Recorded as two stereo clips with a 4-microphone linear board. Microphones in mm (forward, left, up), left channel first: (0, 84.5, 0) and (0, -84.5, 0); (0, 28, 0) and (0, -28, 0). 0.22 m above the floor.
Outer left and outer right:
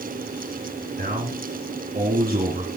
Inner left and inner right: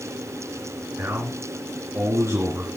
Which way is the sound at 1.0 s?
60° right (ahead or behind).